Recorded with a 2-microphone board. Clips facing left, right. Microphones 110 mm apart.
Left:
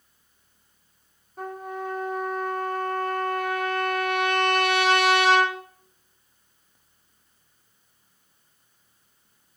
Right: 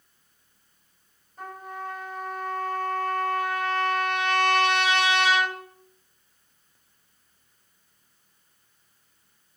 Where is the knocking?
I don't hear knocking.